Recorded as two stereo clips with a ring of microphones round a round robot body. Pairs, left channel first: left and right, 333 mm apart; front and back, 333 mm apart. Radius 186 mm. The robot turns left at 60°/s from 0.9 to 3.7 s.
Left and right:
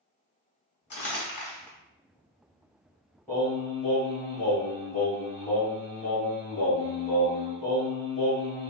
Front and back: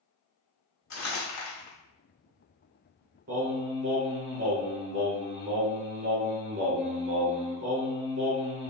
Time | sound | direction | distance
0.9 | crumpling | 50° left | 1.3 m
3.3 | singing | 170° left | 1.4 m